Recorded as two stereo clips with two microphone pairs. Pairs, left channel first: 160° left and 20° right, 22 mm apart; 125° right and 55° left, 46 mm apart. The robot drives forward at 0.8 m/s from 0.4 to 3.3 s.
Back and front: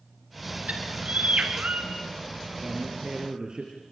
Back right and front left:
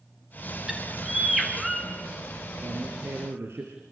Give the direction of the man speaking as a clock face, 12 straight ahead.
11 o'clock.